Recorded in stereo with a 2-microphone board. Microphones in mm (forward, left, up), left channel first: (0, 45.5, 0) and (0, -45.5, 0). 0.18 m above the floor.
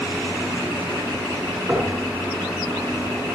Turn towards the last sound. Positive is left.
turn(degrees=-30)  # may be behind; listen again after turning